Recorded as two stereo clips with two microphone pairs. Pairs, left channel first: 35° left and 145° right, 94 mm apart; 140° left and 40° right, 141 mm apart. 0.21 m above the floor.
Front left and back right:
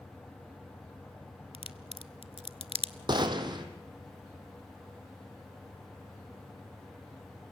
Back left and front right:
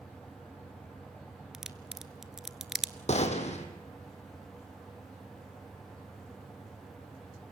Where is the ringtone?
No ringtone in this recording.